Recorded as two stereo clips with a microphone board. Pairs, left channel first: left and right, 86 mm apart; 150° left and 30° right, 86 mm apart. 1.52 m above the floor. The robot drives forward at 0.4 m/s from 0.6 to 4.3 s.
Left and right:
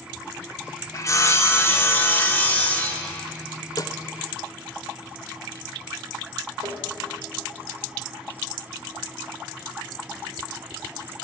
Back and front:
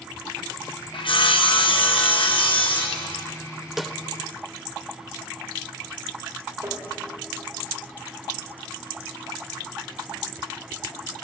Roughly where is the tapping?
Right.